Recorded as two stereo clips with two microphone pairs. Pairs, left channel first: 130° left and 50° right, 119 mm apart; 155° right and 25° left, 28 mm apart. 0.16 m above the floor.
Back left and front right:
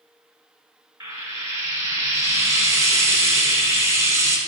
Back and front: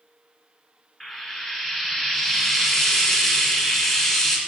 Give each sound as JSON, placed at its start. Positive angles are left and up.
{"t": 1.0, "sound": "frying", "azimuth_deg": -95, "distance_m": 1.2}